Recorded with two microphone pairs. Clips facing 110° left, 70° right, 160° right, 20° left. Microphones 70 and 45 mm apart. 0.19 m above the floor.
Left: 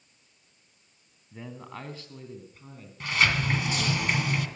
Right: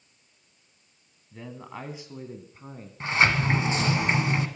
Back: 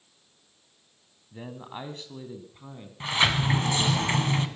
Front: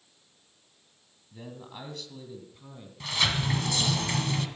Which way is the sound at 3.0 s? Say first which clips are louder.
Right 3 dB, back 4 dB; 115° right.